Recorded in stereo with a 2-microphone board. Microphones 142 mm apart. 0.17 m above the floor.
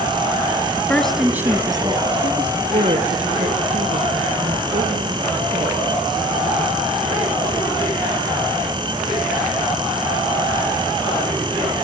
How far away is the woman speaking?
About 1.1 m.